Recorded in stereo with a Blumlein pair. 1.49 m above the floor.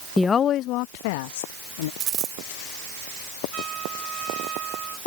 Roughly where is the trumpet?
Ahead right.